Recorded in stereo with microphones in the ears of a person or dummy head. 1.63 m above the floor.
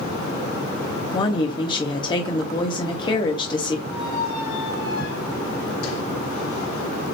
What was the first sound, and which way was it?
A woman speaking, 25° left (ahead or behind).